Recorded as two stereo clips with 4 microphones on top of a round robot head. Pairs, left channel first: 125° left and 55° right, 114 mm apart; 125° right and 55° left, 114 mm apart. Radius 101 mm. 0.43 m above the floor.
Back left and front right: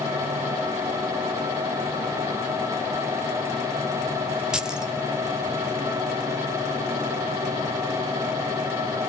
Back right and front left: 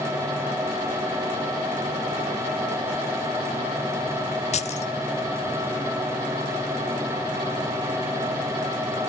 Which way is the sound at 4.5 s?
140° right.